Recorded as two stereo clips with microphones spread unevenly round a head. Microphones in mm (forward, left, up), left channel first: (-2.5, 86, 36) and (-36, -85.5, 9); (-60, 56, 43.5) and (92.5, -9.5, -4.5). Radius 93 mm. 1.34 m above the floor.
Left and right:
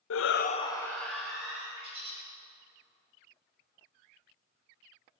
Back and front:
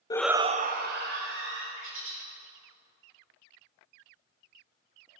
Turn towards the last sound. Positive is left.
turn(degrees=-35)